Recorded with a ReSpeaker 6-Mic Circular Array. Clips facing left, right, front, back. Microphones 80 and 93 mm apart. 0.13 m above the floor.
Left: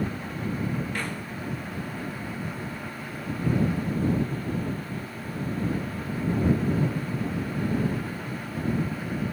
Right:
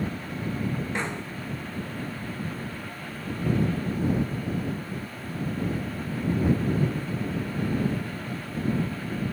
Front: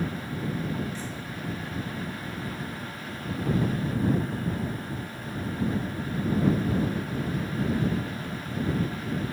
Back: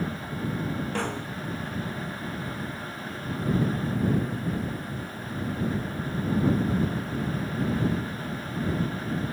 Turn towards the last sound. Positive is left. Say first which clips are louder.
# right 2 dB, back 6 dB
turn(degrees=-160)